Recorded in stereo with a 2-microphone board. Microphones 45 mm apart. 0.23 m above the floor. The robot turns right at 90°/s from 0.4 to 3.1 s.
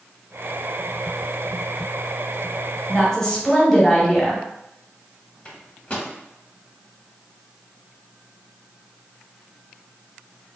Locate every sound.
2.9 s a woman speaking: 20° left (ahead or behind), 1.3 m; by 4.4 s 10° left (ahead or behind), 1.3 m
5.5 s a microwave: 30° left (ahead or behind), 0.8 m